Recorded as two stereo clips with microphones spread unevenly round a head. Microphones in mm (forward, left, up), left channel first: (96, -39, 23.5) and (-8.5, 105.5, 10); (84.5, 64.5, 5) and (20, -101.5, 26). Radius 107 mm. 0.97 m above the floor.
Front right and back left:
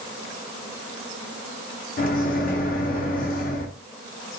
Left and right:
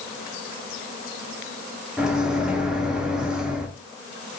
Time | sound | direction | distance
2.0 | a microwave | 20° right | 0.6 m